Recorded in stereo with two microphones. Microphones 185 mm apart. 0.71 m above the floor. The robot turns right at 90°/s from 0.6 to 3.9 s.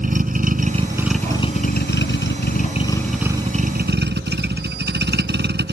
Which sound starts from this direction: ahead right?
A vehicle, at 0.0 s.